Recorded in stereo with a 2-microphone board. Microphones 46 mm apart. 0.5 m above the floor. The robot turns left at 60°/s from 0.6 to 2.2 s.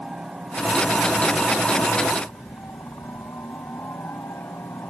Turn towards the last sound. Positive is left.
turn(degrees=100)